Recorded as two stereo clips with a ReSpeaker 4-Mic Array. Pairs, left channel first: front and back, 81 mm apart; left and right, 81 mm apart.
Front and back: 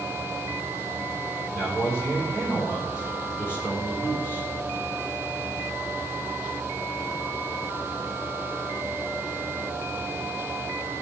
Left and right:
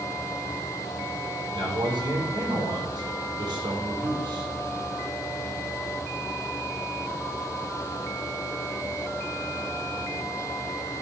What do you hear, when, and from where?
1.5 s a man speaking: 60° right, 4.5 m